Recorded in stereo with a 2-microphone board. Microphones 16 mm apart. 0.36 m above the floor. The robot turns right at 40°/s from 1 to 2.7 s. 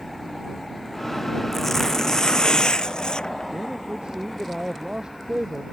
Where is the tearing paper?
25° left; by 3.5 s 75° left.